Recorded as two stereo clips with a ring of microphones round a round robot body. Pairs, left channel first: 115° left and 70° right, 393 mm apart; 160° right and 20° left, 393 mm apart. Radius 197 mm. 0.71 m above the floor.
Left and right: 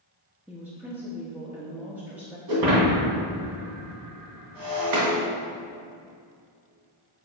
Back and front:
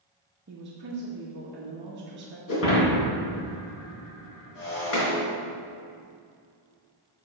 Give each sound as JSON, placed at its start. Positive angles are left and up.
{"t": 0.5, "sound": "a woman speaking", "azimuth_deg": 15, "distance_m": 1.1}
{"t": 2.5, "sound": "breaking glass", "azimuth_deg": -100, "distance_m": 2.5}